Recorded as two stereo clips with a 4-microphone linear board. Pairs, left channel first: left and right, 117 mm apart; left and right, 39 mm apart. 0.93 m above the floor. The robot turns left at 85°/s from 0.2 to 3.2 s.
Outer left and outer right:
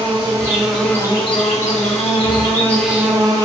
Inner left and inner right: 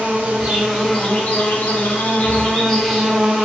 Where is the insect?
135° right, 1.2 m; by 3.5 s 30° right, 1.2 m.